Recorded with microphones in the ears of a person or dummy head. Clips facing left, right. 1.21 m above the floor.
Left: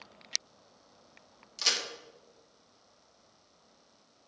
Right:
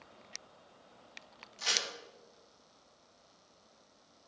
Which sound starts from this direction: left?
A crack, at 1.6 s.